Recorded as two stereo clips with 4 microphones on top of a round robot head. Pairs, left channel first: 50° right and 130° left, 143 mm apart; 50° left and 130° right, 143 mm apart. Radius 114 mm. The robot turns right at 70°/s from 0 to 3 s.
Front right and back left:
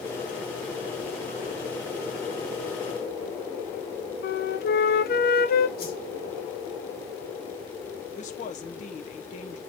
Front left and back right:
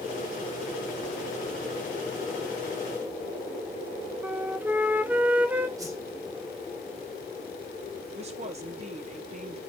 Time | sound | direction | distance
4.2 | a flute | 55° right | 0.7 m
5.8 | a whoosh | 65° right | 3 m
8.2 | a woman speaking | 85° right | 1.3 m